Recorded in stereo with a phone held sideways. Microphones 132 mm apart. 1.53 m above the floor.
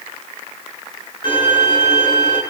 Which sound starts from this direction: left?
A violin, at 1.2 s.